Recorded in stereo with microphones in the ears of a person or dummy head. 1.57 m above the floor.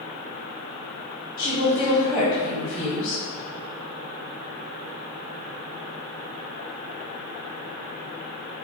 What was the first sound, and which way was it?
A woman speaking, 25° left (ahead or behind).